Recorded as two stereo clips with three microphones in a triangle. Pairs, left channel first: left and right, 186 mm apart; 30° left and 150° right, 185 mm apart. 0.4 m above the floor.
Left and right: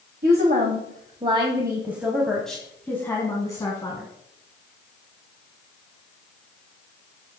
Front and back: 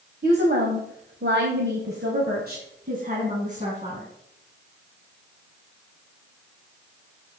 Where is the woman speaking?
120° right, 2 m; by 4.1 s 160° left, 3.5 m.